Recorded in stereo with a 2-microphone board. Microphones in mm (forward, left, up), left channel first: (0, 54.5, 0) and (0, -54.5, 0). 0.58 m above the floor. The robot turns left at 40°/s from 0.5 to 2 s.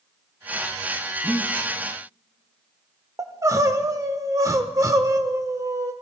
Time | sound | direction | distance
1.2 | breathing | 10° right (ahead or behind) | 1.5 m
3.2 | crying | 30° right (ahead or behind) | 0.9 m